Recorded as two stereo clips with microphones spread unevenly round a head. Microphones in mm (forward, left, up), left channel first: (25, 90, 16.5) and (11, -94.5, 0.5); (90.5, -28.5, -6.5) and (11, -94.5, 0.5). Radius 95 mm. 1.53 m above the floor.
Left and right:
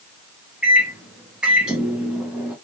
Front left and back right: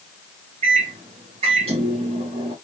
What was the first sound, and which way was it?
A microwave, straight behind.